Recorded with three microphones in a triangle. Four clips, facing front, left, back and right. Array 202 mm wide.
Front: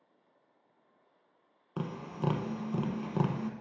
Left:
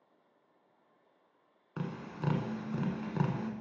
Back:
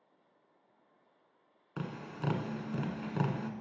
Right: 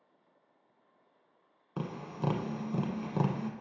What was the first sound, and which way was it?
Tapping, 35° right.